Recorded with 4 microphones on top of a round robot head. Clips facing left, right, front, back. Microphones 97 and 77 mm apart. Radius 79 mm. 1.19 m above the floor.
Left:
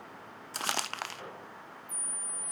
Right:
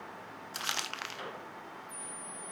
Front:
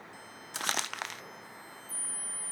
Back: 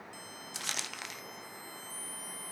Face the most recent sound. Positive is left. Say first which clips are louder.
# left 5 dB, front 8 dB
turn(degrees=40)